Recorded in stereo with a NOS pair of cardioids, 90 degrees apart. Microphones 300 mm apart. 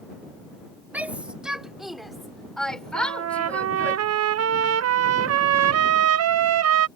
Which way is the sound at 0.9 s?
5° right.